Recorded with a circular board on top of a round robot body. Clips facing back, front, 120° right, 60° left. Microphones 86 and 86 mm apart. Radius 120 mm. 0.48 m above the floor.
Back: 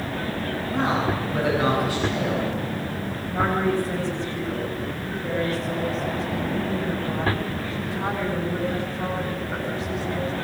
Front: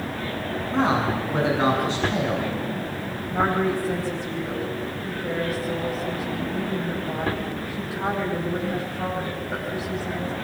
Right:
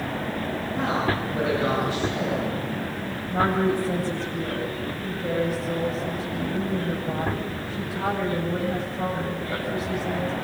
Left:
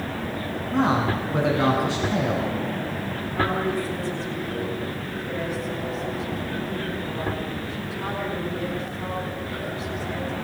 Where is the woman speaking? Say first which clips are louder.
Even, right 3 dB; 80° right, 10 m.